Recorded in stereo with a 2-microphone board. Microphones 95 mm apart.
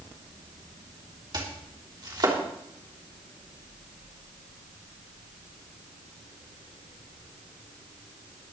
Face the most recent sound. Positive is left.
turn(degrees=-45)  # may be behind; listen again after turning